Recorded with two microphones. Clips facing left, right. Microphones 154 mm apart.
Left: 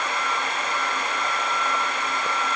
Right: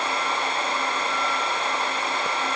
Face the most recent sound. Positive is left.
No sound to turn to.